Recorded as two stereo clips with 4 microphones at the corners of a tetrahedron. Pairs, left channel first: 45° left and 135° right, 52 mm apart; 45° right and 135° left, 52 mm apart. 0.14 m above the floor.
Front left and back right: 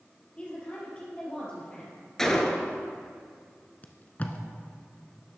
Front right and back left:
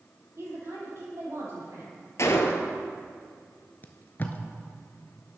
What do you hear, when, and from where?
0.4 s a woman speaking: 110° left, 4 m
2.2 s a gunshot: 35° right, 0.9 m
3.8 s tape being pulled: 5° right, 0.8 m